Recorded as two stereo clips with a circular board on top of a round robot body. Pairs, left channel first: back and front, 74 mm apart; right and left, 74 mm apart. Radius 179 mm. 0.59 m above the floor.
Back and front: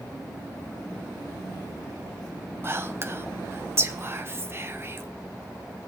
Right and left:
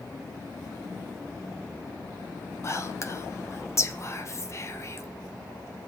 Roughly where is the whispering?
Ahead right.